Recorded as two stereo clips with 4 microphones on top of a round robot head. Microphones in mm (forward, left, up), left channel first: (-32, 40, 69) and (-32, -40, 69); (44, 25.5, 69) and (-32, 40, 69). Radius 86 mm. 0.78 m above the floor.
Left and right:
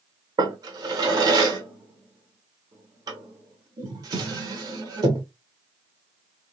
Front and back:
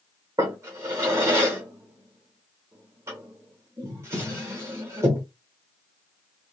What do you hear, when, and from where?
0.4 s a drawer: 130° right, 0.8 m